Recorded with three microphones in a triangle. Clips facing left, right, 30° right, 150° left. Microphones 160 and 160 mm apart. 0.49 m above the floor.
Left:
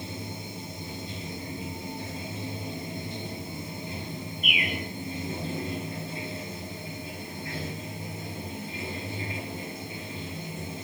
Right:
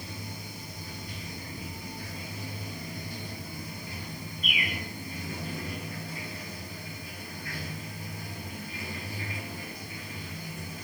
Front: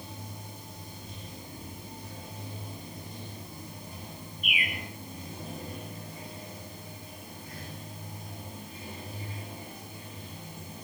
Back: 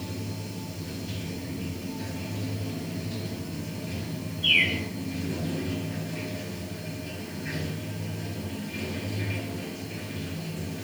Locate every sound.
0.0 s running water: 155° left, 2.5 m
4.4 s a bird: 145° right, 4.5 m